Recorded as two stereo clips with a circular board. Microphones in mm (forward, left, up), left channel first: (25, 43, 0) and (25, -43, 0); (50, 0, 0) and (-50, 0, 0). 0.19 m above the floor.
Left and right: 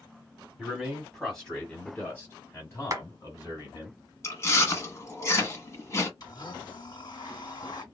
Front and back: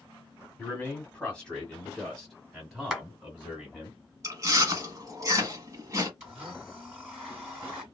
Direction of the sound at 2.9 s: 95° right.